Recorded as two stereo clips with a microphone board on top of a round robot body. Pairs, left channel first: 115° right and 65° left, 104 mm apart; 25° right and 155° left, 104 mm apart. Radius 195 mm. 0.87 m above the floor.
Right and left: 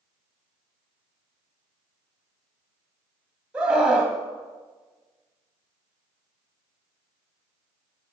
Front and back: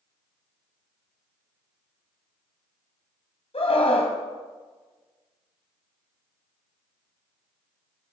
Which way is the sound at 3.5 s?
10° right.